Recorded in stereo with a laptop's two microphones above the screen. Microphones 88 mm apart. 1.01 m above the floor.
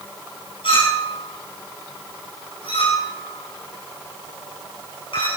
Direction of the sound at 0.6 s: 75° left (ahead or behind).